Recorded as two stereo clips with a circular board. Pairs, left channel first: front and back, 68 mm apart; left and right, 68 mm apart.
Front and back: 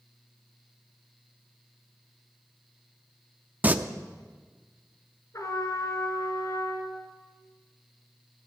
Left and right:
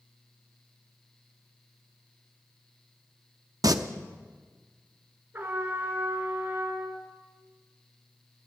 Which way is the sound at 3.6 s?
115° right.